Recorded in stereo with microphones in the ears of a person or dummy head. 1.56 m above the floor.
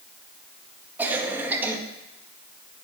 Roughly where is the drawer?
I don't hear a drawer.